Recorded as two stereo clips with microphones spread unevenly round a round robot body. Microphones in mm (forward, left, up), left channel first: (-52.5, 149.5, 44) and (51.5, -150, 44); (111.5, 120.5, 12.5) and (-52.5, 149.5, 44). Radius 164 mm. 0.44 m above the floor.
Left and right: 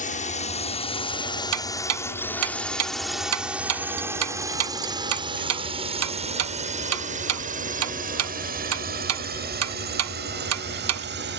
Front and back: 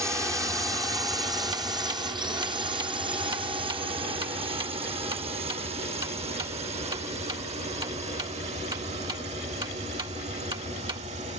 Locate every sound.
0.0 s a drone: 95° left; by 11.4 s 125° right
1.5 s ticking: 110° right